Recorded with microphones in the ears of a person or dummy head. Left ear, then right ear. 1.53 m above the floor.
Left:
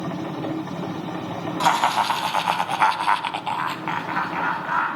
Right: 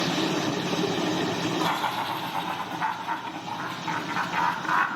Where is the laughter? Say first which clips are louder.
Left 11 dB; 75° left (ahead or behind), 1.5 m; by 4.9 s 20° right (ahead or behind), 1.0 m.